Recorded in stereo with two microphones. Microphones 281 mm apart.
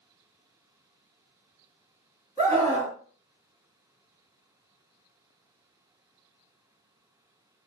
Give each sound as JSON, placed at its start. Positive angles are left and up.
{"t": 2.4, "sound": "a scream", "side_deg": -10, "distance_m": 1.4}